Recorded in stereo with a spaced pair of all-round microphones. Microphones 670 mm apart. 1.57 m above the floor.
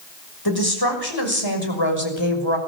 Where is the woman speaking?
35° left (ahead or behind), 7 m; by 2.6 s 45° left (ahead or behind), 6 m.